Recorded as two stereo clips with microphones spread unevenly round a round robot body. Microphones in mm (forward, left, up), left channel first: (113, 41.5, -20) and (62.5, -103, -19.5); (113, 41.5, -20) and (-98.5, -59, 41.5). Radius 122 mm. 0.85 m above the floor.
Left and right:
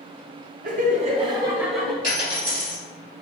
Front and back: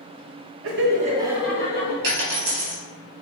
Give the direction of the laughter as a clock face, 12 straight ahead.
4 o'clock.